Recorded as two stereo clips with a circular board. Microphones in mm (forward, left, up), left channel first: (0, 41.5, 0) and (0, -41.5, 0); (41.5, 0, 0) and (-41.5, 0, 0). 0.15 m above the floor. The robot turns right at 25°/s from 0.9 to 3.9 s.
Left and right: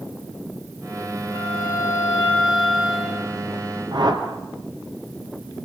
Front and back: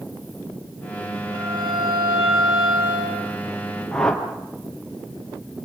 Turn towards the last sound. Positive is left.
turn(degrees=-80)